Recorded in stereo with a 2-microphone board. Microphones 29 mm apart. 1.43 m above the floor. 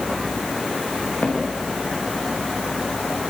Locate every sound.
1.2 s footsteps: 55° left (ahead or behind), 8 m; by 3.2 s 60° left (ahead or behind), 5.5 m